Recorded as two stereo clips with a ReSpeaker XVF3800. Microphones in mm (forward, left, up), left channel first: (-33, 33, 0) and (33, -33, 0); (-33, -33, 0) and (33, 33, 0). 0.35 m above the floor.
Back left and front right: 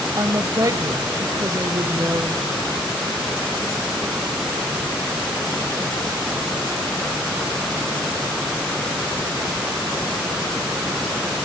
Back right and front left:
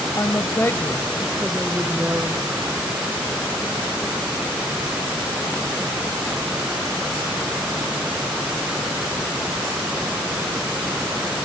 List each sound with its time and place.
0.2 s a woman speaking: 90° right, 1.7 m; by 2.7 s 10° left, 1.4 m